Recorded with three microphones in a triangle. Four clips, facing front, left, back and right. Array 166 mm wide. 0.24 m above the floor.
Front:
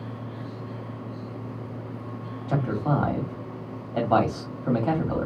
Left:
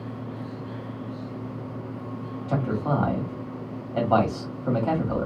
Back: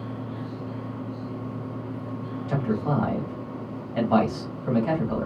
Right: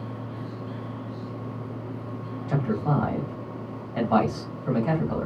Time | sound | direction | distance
2.5 | a man speaking | 35° left | 1.3 m